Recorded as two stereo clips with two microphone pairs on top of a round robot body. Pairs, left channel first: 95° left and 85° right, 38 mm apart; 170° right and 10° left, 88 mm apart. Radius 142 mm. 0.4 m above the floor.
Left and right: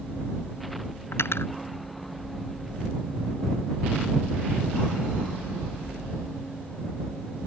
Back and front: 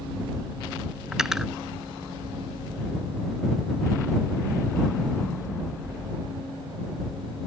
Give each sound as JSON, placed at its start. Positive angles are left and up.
{"t": 1.1, "sound": "cutlery clinking", "azimuth_deg": 95}